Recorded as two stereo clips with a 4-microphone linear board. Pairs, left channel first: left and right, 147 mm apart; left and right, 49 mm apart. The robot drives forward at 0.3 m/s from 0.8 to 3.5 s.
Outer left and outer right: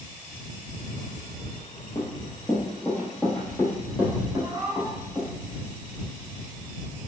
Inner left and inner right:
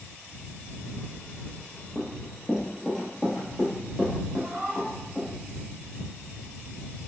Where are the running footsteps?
30° left (ahead or behind), 0.9 m; by 5.3 s 5° right (ahead or behind), 2.5 m.